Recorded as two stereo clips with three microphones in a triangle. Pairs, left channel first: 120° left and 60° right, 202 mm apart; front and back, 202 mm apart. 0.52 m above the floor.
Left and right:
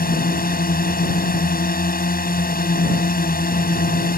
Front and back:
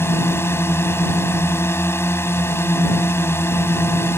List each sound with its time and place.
0.0 s a drone: 80° left